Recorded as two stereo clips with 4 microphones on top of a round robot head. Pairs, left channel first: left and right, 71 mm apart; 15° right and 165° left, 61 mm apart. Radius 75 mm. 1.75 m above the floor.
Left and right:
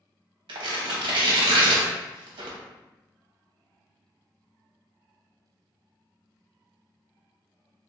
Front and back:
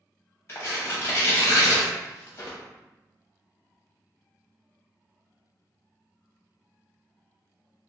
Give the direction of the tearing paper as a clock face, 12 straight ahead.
2 o'clock.